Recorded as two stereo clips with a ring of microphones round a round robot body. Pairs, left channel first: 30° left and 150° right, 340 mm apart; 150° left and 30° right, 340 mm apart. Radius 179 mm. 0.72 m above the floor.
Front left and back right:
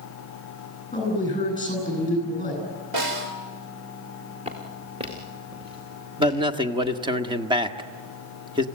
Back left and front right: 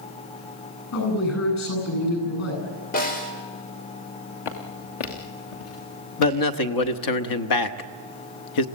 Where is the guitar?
I don't hear a guitar.